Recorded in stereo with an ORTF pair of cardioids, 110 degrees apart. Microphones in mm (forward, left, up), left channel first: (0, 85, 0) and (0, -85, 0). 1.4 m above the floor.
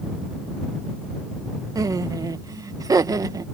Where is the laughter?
20° right.